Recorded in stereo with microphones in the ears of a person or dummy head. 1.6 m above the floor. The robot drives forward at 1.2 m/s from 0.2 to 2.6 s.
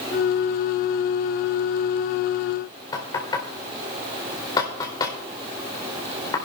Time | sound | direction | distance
2.9 | knocking | 20° left (ahead or behind) | 4 m